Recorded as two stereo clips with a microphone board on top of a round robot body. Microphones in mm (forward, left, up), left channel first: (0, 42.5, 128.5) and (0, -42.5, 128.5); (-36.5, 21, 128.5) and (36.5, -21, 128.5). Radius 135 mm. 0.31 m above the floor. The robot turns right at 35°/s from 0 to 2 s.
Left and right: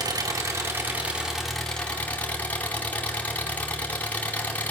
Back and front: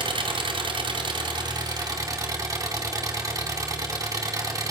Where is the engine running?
55° right, 2.5 m; by 4.7 s 15° left, 2.5 m.